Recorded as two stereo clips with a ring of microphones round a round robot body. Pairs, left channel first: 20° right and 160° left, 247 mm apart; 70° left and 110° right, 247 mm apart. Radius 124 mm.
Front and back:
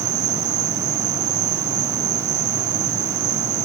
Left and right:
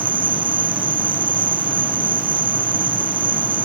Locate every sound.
0.0 s an insect: 175° left